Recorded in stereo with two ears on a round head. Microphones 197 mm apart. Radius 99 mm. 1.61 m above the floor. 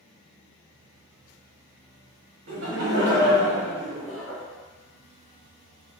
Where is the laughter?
65° right (ahead or behind), 1.0 m; by 4.4 s 10° left (ahead or behind), 0.5 m.